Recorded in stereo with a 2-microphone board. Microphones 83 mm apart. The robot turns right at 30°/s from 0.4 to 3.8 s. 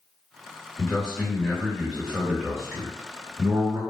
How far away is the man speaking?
About 1.9 m.